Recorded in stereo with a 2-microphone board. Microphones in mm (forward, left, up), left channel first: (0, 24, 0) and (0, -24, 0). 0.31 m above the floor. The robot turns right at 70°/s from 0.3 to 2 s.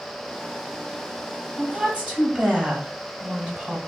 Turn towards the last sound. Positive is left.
turn(degrees=-25)  # may be behind; listen again after turning